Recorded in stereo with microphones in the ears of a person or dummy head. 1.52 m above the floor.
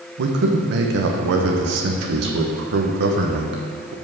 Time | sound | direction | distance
0.2 | a man speaking | 70° right (ahead or behind) | 1.2 m